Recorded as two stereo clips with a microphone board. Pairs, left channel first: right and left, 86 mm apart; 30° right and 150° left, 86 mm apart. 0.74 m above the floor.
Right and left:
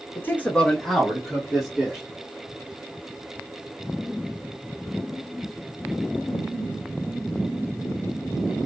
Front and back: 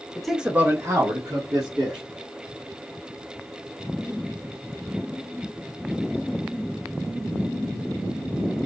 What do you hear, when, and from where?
0.1 s a man speaking: 105° right, 0.6 m; by 2.0 s 170° left, 1.6 m